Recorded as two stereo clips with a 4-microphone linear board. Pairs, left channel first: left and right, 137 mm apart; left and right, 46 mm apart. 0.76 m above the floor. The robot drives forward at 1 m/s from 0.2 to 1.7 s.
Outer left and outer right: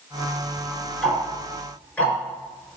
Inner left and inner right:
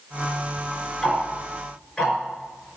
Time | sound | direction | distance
1.0 | ticking | 10° left (ahead or behind) | 5 m